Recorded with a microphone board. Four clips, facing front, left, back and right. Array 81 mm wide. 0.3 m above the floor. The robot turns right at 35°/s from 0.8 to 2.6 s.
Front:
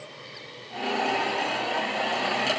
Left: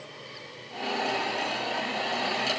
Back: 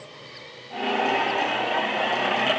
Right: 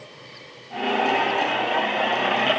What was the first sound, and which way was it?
Only background noise.